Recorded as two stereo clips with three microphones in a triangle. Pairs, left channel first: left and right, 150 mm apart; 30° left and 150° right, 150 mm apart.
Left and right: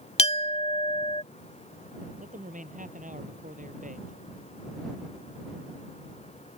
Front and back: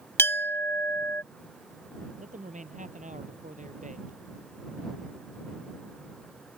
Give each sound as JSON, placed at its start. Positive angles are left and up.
{"t": 0.2, "sound": "a clink", "azimuth_deg": 95}
{"t": 2.2, "sound": "a man speaking", "azimuth_deg": -120}